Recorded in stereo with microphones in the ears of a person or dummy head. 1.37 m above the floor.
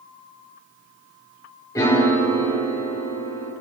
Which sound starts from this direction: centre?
A piano, at 1.8 s.